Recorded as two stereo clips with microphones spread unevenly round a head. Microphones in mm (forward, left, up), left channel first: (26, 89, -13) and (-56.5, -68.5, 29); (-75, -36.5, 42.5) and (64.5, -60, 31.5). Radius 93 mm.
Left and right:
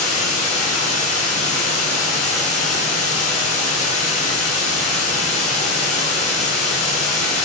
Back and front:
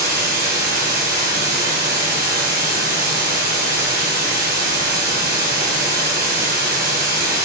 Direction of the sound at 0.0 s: 5° left.